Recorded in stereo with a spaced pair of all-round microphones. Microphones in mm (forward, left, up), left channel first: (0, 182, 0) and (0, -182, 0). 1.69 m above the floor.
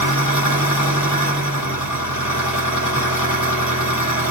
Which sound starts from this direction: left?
An engine running, at 0.0 s.